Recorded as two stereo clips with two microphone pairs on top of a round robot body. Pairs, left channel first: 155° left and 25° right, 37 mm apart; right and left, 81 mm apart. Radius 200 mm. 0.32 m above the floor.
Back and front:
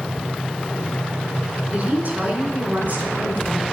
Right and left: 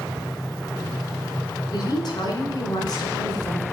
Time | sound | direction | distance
1.7 | a woman speaking | 65° right | 2 m